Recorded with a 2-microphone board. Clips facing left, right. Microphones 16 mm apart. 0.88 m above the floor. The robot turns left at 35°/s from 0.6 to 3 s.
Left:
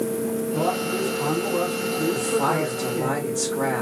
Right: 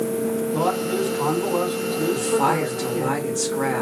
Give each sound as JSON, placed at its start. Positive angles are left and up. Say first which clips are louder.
{"t": 0.5, "sound": "a man speaking", "louder": "right 1 dB", "azimuth_deg": -70, "distance_m": 3.5}
{"t": 2.1, "sound": "a woman speaking", "louder": "right 3 dB", "azimuth_deg": -135, "distance_m": 1.6}